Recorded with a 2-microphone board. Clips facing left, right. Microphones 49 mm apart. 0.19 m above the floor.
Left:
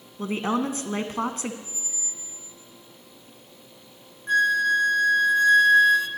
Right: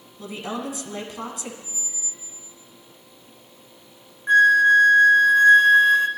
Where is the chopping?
No chopping in this recording.